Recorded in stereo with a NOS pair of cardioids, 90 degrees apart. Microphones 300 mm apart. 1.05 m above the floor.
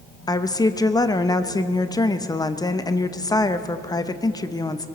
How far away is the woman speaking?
About 0.8 m.